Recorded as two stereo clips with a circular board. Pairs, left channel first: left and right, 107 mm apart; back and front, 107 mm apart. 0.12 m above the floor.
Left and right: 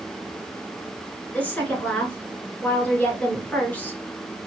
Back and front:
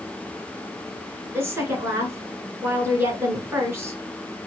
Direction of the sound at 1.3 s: 30° left.